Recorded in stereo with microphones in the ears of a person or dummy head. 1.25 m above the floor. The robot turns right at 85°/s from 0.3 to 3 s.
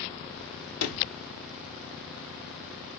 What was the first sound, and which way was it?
A sliding door, 75° left.